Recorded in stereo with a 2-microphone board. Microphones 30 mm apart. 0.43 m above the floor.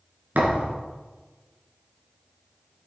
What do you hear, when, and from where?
0.3 s a thud: 85° right, 2.5 m